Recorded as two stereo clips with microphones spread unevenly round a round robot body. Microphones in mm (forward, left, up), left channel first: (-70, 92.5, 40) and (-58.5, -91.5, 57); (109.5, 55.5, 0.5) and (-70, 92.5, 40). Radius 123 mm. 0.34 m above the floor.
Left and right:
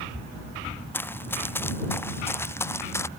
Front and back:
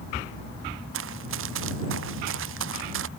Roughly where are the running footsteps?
Behind.